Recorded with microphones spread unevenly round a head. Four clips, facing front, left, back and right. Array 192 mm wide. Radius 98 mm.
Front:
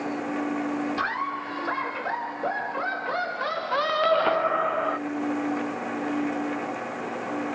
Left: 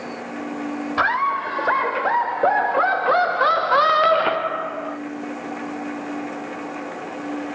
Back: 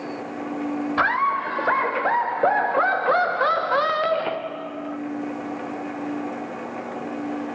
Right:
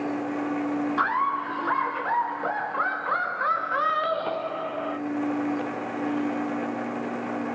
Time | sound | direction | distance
1.0 | laughter | 130° left | 1.8 m